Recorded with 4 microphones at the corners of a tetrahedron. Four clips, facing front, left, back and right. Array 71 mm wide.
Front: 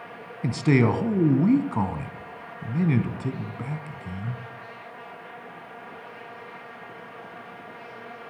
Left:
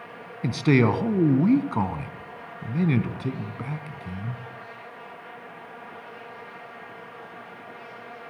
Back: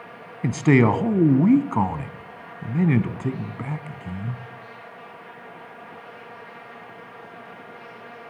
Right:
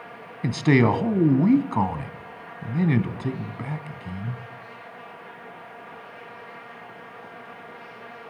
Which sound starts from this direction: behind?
A man speaking, at 0.4 s.